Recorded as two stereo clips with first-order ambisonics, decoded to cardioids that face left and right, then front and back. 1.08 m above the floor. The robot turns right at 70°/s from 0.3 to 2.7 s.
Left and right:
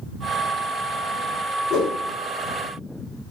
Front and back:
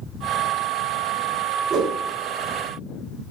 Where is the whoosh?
115° left, 0.8 m; by 2.0 s 135° left, 0.8 m.